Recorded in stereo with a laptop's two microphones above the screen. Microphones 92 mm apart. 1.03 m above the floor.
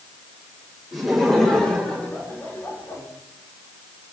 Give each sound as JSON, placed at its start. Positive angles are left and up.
{"t": 0.9, "sound": "laughter", "side_deg": 0, "distance_m": 4.5}